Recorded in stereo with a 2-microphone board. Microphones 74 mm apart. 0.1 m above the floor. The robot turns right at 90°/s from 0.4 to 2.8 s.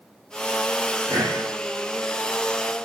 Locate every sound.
1.1 s breathing: 50° right (ahead or behind), 5 m; by 1.4 s 70° right (ahead or behind), 5 m